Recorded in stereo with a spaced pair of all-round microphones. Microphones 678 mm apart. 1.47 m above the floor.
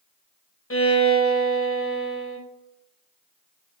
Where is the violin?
20° left (ahead or behind), 0.7 m.